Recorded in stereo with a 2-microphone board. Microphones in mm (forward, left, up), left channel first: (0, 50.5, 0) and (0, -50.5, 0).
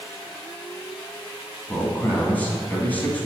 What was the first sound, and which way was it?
A man speaking, 15° left (ahead or behind).